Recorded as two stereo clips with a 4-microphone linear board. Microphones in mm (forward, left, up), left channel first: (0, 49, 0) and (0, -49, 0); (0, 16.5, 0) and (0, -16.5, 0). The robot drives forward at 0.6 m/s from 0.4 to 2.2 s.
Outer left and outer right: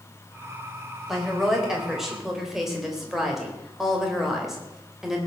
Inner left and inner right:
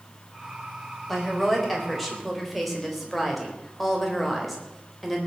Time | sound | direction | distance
1.1 | a woman speaking | 5° right (ahead or behind) | 4.5 m